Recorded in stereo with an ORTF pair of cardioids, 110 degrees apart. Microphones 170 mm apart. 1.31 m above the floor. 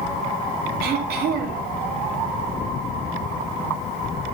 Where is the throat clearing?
70° right, 3 m.